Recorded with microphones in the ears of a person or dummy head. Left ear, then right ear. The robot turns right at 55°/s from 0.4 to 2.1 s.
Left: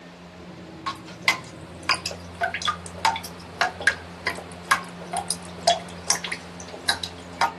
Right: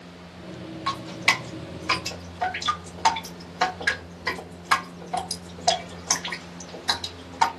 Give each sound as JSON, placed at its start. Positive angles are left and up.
{"t": 0.9, "sound": "dripping", "side_deg": 5, "distance_m": 1.1}